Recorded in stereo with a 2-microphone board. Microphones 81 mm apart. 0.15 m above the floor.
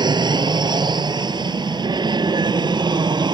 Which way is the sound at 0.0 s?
60° right (ahead or behind).